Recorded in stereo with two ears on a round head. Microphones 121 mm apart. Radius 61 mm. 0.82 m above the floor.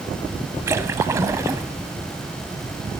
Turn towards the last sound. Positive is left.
turn(degrees=-20)  # may be behind; listen again after turning